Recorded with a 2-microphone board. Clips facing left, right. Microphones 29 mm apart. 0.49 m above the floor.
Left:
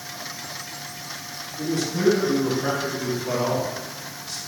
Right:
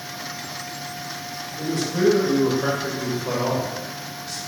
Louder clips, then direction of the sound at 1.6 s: Right 2 dB; 55° right (ahead or behind).